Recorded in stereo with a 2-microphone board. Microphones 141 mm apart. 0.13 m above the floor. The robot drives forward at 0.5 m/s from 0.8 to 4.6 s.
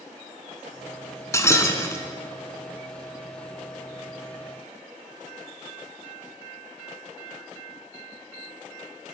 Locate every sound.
1.3 s breaking glass: 20° left (ahead or behind), 0.7 m